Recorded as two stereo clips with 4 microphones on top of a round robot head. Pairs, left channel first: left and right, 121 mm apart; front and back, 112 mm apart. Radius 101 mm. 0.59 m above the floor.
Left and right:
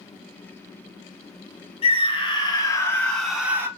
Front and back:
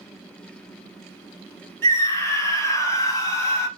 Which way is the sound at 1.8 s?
60° left.